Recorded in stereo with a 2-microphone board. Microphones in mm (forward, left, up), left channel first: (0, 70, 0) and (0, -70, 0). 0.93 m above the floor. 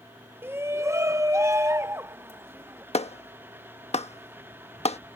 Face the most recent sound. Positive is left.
turn(degrees=55)  # may be behind; listen again after turning